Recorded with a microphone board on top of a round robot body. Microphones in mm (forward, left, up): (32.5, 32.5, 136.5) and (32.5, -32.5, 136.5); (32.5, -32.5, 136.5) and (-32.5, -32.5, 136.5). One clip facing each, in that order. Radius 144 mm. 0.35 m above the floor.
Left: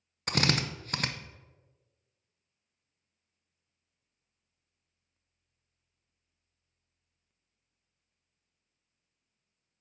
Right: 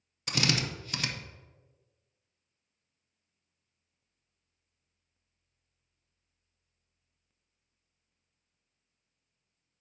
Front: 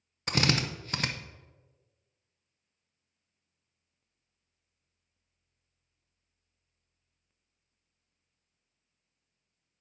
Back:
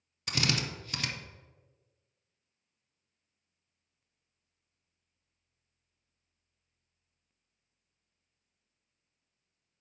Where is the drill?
50° left, 0.7 m.